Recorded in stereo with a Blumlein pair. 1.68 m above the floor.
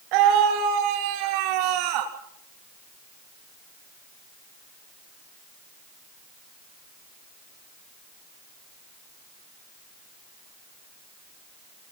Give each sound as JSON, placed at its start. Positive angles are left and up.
{"t": 0.1, "sound": "a scream", "azimuth_deg": -45, "distance_m": 3.0}